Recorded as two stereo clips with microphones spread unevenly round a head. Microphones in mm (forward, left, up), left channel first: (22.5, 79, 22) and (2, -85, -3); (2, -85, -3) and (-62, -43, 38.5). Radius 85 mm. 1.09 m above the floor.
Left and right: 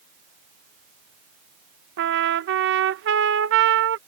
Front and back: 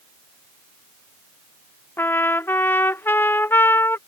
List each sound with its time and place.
2.0 s a trumpet: 90° right